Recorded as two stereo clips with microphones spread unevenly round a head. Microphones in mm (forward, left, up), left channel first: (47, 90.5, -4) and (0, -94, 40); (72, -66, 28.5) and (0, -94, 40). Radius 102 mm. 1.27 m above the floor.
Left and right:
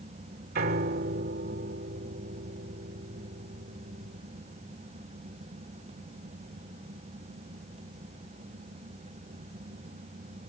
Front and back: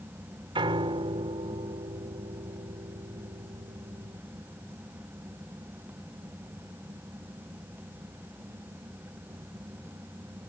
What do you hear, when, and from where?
0.6 s a piano: 150° right